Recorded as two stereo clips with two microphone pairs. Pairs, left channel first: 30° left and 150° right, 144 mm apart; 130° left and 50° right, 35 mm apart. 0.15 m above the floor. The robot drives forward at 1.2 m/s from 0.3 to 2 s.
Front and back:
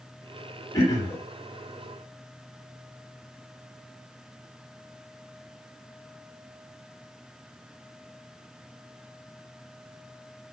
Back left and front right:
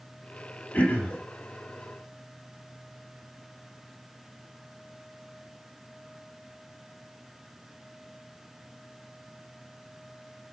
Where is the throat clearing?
90° left, 4.5 m; by 1.2 s 100° left, 4.5 m.